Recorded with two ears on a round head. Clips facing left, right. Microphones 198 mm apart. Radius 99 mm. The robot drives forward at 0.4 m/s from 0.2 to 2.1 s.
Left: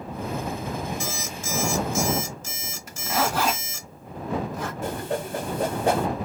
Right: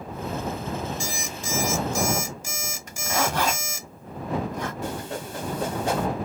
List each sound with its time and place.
1.0 s an alarm clock: 15° right (ahead or behind), 1.0 m; by 3.9 s 10° right (ahead or behind), 1.4 m
2.9 s a zipper: 5° left (ahead or behind), 1.4 m
4.8 s a whoosh: 45° left (ahead or behind), 0.7 m